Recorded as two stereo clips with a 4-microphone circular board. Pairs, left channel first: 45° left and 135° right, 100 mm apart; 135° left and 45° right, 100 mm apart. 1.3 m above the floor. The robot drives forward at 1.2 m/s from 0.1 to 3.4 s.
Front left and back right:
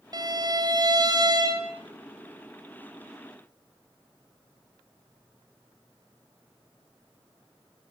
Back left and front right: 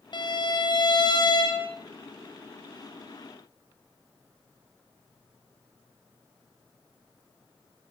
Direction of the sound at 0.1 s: 175° left.